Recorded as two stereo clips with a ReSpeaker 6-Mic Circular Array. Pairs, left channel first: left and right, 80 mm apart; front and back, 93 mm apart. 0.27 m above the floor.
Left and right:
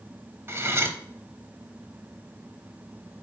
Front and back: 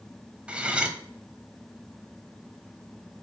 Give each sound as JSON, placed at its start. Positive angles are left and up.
{"t": 0.5, "sound": "cutlery clinking", "azimuth_deg": -115, "distance_m": 0.8}